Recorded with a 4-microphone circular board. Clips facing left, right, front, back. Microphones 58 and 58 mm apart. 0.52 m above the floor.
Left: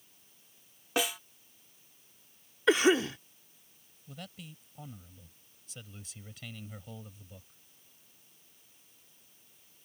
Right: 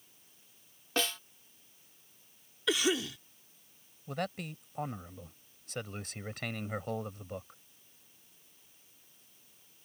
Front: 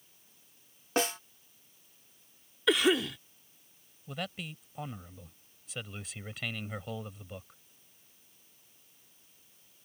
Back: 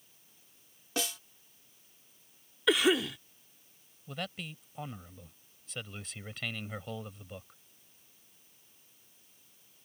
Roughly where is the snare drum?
Ahead.